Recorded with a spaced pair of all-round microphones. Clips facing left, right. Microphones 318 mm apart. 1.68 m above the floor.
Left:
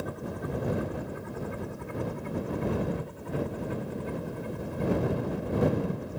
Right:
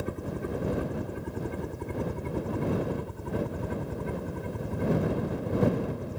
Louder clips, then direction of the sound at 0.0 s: Right 2 dB; 30° right (ahead or behind).